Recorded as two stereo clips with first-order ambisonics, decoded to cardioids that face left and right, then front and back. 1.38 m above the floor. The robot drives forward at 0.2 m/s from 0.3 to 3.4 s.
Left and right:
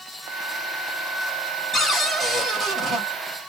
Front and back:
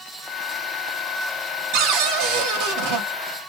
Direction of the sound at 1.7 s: 175° left.